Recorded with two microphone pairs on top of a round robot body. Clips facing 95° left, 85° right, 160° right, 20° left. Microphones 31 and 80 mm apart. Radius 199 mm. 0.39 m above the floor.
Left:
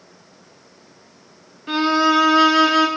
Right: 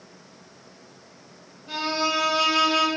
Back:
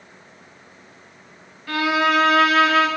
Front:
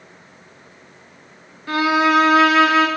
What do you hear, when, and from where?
1.7 s a violin: 85° left, 1.1 m